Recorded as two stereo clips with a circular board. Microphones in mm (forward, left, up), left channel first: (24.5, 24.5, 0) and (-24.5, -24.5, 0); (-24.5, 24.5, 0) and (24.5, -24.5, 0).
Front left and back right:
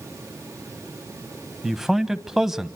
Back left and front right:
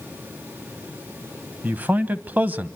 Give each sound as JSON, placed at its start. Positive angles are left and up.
{"t": 1.6, "sound": "a man speaking", "azimuth_deg": -55, "distance_m": 1.0}